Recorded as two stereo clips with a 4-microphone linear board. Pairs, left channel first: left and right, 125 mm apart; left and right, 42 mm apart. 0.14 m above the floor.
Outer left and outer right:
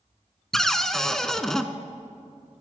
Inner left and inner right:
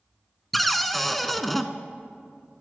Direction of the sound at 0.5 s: 5° left (ahead or behind).